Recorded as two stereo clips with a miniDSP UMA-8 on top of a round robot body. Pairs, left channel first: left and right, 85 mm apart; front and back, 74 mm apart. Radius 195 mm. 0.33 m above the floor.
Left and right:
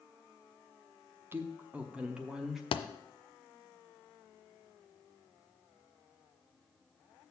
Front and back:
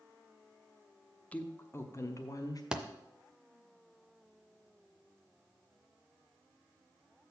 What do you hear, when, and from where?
1.3 s a woman speaking: 55° right, 1.0 m; by 2.6 s 5° right, 1.5 m
2.7 s a thud: 100° left, 0.5 m